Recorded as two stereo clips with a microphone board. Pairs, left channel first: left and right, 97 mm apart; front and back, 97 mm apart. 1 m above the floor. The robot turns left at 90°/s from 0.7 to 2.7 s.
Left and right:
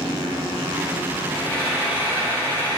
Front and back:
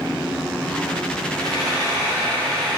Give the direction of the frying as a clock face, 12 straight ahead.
11 o'clock.